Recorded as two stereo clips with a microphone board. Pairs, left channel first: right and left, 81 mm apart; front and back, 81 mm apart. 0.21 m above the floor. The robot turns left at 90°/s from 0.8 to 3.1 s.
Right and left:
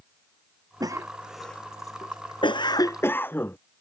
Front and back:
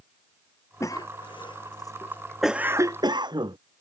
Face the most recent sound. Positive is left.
turn(degrees=-155)